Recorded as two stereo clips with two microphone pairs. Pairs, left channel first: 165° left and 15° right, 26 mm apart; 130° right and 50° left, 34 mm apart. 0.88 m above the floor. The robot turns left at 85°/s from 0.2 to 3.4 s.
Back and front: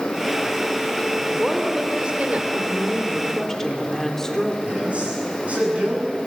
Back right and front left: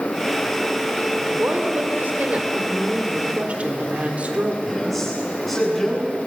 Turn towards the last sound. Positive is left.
turn(degrees=-45)